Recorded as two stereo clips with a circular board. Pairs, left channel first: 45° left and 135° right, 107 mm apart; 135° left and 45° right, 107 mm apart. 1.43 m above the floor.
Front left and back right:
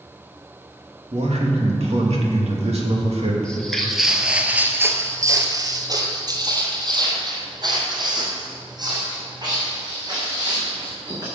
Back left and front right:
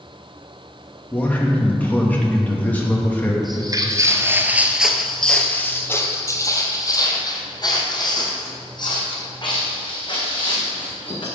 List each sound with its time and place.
1.1 s a man speaking: 150° right, 2.5 m
3.4 s footsteps: 35° right, 1.8 m; by 11.2 s 175° left, 6.5 m